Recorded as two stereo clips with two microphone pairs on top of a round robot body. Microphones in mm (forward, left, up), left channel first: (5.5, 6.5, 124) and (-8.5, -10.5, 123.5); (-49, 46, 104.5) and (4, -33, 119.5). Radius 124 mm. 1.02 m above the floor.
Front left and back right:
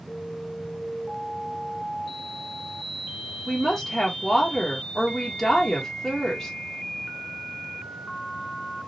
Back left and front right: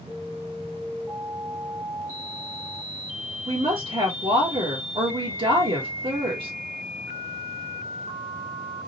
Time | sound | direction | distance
3.5 | a woman speaking | 25° right | 1.1 m